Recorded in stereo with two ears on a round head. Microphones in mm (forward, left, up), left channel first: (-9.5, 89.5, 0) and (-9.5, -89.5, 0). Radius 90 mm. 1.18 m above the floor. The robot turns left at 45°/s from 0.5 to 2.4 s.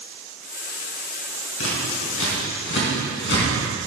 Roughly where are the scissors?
Left.